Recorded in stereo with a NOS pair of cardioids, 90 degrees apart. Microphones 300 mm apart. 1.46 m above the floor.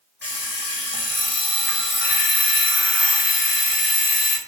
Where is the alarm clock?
40° left, 1.6 m.